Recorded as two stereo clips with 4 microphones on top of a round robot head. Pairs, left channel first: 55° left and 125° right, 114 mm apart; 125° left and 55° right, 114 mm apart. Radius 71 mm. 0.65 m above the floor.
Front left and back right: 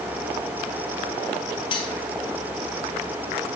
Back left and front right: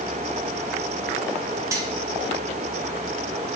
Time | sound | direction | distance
1.7 | cutlery clinking | 10° left | 1.8 m